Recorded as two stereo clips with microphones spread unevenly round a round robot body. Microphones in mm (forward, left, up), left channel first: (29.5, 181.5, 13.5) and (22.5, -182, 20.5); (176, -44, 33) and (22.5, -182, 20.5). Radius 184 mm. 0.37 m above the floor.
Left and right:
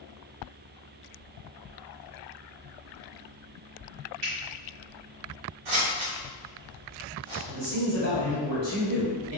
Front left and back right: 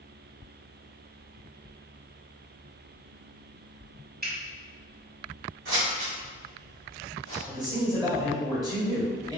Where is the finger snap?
100° right, 1.7 m.